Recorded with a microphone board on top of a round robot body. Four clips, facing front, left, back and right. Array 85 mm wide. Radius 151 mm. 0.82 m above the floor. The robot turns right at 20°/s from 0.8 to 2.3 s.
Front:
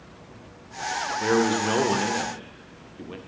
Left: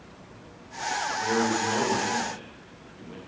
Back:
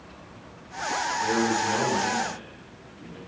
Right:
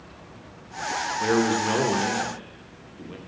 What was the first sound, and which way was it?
A man speaking, 45° right.